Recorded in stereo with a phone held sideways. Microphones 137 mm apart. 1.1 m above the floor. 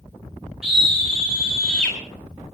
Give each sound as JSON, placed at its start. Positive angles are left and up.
{"t": 0.6, "sound": "a scream", "side_deg": -5, "distance_m": 4.0}